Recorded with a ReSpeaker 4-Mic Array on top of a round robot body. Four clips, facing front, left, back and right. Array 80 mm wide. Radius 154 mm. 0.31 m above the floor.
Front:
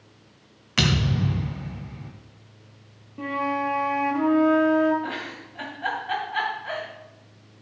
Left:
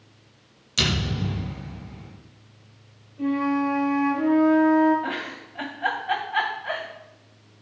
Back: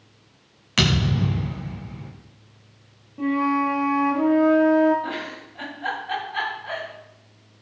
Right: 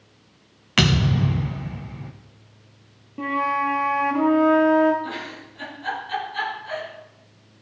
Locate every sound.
0.8 s a thud: 95° right, 1.9 m
3.2 s a flute: 80° right, 1.6 m
5.0 s a giggle: 80° left, 3 m